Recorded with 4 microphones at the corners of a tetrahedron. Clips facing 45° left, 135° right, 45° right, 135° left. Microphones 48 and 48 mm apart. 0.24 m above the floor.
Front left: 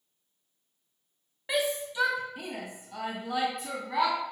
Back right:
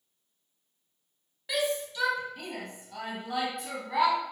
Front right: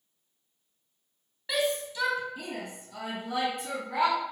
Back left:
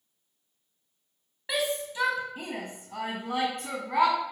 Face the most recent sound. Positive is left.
turn(degrees=140)